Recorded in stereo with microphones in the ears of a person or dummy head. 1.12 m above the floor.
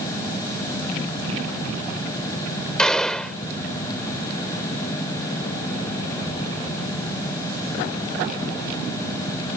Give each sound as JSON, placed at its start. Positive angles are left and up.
{"t": 2.8, "sound": "a gunshot", "side_deg": 5}